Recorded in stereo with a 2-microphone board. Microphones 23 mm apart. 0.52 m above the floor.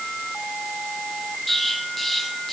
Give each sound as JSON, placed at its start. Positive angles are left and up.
{"t": 1.5, "sound": "an explosion", "side_deg": 5, "distance_m": 1.4}